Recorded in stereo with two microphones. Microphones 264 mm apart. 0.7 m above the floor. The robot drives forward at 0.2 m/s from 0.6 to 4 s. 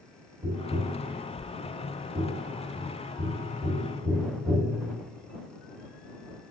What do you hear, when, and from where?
0.4 s tapping: 35° right (ahead or behind), 1.4 m